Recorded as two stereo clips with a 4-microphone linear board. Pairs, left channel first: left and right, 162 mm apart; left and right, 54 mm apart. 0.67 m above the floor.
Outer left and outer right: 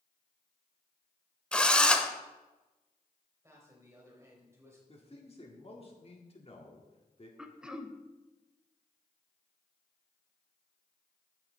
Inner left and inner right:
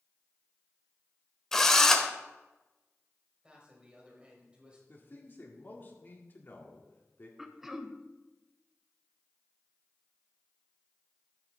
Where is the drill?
5° left (ahead or behind), 0.8 m.